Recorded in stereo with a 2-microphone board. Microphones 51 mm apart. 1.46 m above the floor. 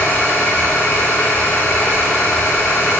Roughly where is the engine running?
Left.